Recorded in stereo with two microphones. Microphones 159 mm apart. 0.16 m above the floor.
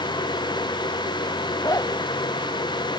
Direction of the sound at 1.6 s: 20° left (ahead or behind).